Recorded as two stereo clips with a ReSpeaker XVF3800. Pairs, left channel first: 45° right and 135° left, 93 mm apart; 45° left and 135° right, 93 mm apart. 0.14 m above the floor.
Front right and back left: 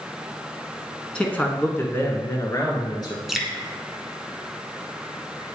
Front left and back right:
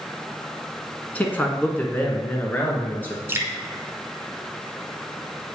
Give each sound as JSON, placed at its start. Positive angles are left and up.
{"t": 1.1, "sound": "a man speaking", "azimuth_deg": 10, "distance_m": 1.1}
{"t": 3.3, "sound": "dripping", "azimuth_deg": -140, "distance_m": 0.7}